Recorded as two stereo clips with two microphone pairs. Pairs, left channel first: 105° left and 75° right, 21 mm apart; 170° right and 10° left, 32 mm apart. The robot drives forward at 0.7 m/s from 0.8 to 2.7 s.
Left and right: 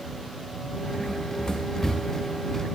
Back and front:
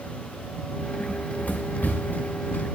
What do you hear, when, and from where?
1.0 s running footsteps: 145° left, 1.0 m; by 2.6 s straight behind, 3 m